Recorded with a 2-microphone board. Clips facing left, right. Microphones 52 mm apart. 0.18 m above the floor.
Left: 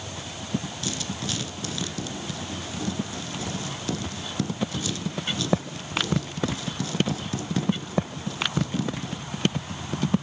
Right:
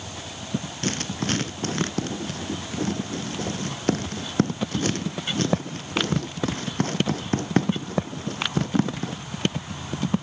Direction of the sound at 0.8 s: 50° right (ahead or behind).